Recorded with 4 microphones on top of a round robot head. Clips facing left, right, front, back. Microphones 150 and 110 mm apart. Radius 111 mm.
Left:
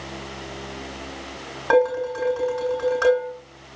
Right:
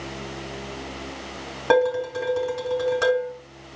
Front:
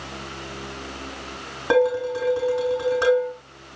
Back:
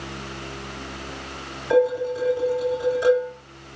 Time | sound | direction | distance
1.7 | dishes clattering | 30° right | 6.5 m